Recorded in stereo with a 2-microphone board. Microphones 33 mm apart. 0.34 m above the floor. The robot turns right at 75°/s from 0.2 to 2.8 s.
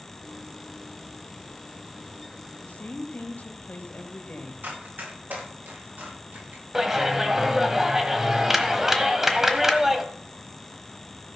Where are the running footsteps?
80° right, 7.5 m; by 6.6 s 70° right (ahead or behind), 8 m.